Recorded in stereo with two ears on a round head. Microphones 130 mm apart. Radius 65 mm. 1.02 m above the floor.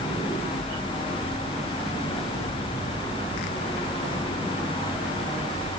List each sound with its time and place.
Only background noise.